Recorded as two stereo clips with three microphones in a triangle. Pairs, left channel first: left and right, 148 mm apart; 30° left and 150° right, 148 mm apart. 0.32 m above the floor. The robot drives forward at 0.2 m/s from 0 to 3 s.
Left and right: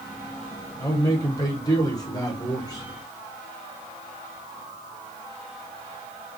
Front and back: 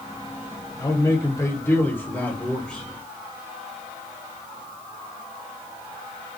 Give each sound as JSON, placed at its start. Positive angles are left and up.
{"t": 0.8, "sound": "a man speaking", "azimuth_deg": 60, "distance_m": 1.0}